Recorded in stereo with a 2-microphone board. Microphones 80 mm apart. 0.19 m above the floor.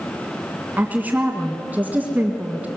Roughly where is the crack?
No crack in this recording.